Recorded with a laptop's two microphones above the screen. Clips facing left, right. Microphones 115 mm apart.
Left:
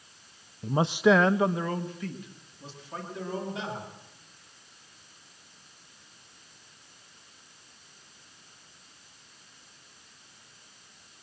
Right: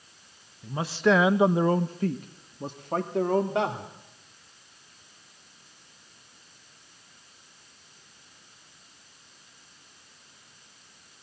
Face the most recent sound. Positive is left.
turn(degrees=-60)  # may be behind; listen again after turning